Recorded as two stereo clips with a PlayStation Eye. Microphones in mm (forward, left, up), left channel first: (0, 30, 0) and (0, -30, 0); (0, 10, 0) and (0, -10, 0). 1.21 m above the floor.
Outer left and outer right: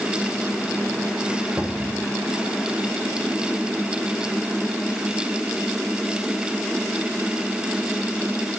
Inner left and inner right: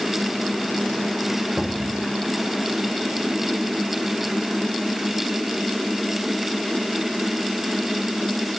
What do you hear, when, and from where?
1.6 s a cupboard door: 15° right (ahead or behind), 0.8 m